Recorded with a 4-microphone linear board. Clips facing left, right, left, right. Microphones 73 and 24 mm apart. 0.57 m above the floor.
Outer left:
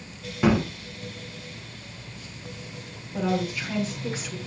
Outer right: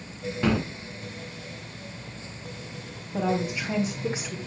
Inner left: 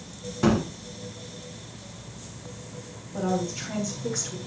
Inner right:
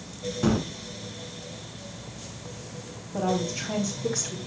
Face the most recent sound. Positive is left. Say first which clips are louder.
# even, inner right 1 dB
turn(degrees=-30)  # may be behind; listen again after turning